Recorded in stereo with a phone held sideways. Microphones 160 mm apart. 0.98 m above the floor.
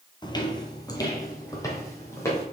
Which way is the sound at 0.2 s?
25° left (ahead or behind).